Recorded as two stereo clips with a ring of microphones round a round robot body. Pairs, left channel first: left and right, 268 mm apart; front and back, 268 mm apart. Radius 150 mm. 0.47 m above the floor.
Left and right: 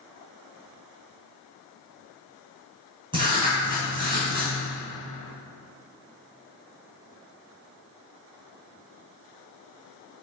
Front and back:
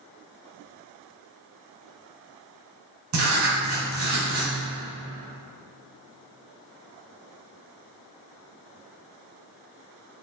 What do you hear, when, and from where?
3.1 s writing: 165° right, 3 m